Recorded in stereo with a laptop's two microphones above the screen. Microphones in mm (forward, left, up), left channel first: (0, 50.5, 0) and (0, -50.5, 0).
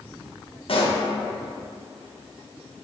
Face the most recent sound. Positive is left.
turn(degrees=60)  # may be behind; listen again after turning